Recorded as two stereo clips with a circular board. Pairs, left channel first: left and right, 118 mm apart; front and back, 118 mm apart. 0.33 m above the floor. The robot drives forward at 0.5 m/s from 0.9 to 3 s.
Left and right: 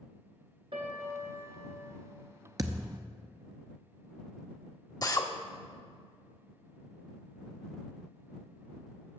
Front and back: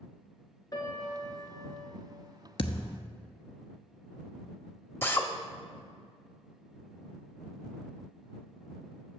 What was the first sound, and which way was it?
A piano, 55° right.